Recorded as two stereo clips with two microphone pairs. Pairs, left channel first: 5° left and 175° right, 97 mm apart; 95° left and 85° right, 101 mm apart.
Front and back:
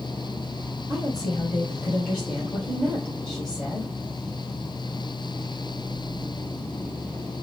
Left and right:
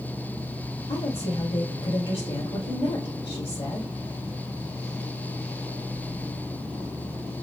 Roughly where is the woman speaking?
Left.